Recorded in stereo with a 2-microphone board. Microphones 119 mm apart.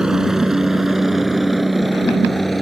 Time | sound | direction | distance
0.0 | a helicopter | 5° right (ahead or behind) | ?